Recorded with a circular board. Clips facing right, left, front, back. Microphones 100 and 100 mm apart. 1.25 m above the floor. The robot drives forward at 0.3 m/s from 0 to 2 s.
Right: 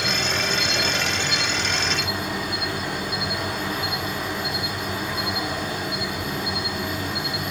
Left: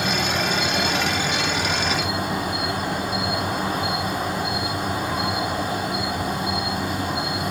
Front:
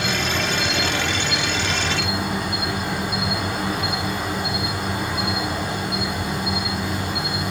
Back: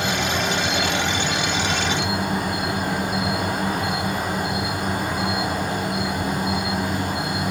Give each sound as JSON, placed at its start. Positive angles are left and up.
{"t": 0.0, "sound": "an insect", "azimuth_deg": 135, "distance_m": 4.0}